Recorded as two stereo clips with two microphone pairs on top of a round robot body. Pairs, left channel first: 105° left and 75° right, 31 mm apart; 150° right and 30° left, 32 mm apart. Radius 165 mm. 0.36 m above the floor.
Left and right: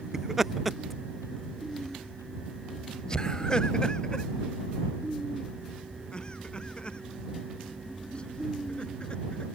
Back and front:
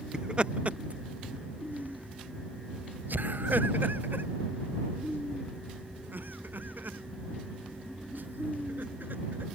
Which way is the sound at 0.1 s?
20° right.